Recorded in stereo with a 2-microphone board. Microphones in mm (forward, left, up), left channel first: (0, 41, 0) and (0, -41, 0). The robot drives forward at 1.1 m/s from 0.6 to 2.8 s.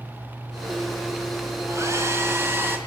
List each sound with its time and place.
1.7 s a hair dryer: 40° right (ahead or behind), 2 m; by 2.8 s 25° right (ahead or behind), 3 m